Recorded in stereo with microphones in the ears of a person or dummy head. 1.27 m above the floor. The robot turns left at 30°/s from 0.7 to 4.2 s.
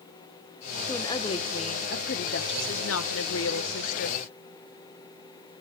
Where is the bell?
I don't hear a bell.